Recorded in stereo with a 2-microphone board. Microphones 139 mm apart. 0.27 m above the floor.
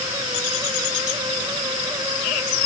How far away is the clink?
I don't hear a clink.